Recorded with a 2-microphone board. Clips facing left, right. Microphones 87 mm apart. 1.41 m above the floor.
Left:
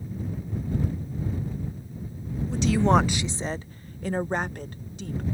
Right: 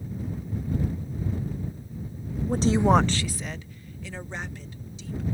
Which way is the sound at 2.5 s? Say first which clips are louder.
Right 1 dB; 50° right (ahead or behind).